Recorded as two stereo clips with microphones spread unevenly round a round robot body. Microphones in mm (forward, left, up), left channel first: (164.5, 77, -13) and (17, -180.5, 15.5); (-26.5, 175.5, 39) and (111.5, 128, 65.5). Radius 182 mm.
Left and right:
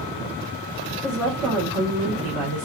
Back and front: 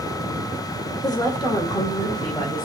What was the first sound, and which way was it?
A woman speaking, 135° left.